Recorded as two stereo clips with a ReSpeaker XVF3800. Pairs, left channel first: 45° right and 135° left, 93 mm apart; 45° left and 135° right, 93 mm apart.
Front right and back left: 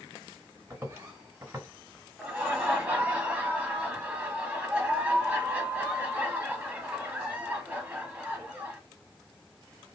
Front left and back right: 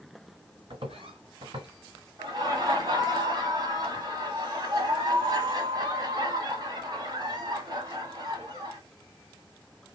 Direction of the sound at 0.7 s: 160° right.